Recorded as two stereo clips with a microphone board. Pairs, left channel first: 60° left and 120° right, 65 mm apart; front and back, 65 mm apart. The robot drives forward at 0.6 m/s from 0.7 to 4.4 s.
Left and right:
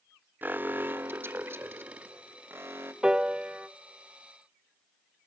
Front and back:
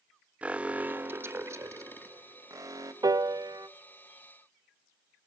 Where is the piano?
160° left, 0.5 m; by 3.7 s 170° left, 0.9 m.